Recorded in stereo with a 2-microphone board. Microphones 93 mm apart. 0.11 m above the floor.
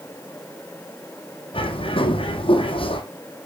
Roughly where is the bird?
Left.